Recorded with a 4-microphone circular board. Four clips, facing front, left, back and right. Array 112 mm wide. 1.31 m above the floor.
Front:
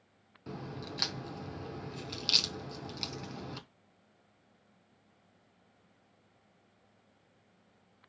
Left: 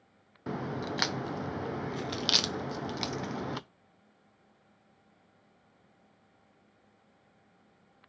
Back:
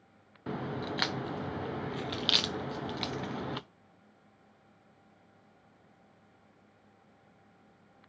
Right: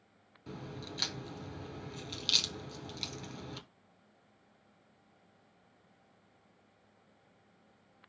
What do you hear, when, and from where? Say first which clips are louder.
0.5 s a crack: left 10 dB, back 7 dB; 120° left, 0.5 m